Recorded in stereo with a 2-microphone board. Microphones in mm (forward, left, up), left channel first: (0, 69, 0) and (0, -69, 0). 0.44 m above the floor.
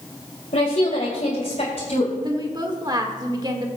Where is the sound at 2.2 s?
30° right (ahead or behind), 1.3 m.